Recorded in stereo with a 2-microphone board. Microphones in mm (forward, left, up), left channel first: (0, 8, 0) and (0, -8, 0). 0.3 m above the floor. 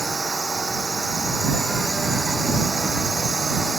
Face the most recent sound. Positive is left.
turn(degrees=20)  # may be behind; listen again after turning